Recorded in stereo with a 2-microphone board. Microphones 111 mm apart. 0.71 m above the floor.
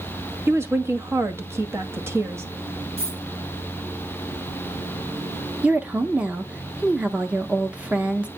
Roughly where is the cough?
No cough in this recording.